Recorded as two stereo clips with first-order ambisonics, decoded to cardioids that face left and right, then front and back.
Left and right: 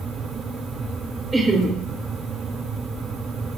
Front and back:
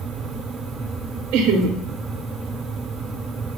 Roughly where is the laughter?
Behind.